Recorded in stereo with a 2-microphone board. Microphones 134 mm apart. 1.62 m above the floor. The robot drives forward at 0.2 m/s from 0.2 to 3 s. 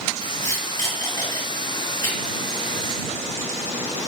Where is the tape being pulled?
25° left (ahead or behind), 1.8 m; by 2.1 s 30° left (ahead or behind), 1.6 m.